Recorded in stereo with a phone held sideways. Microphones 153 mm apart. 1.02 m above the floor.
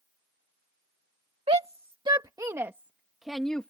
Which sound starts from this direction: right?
A shout, at 1.5 s.